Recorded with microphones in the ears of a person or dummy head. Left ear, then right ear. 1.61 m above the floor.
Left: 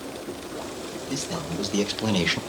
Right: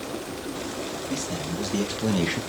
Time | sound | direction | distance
1.1 | a man speaking | 35° left (ahead or behind) | 2.5 m